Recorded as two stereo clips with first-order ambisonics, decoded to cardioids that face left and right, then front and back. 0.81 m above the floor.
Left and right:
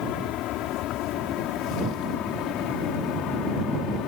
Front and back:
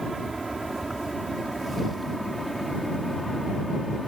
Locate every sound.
0.0 s an aircraft: 105° left; by 4.1 s 90° left